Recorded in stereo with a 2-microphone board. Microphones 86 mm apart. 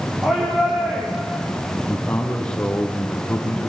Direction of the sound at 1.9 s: 10° left (ahead or behind).